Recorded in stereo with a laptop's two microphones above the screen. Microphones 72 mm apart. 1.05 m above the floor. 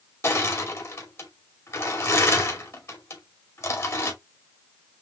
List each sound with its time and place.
0.2 s crushing: 40° left (ahead or behind), 2.5 m